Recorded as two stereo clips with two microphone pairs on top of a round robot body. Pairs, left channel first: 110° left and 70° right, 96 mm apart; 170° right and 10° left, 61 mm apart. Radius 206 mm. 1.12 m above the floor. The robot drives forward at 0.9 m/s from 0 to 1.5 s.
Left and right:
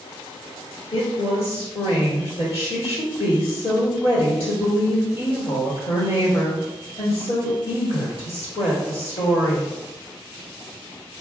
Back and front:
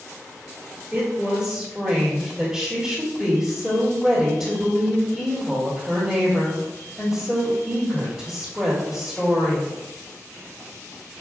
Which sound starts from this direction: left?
A woman speaking, at 0.9 s.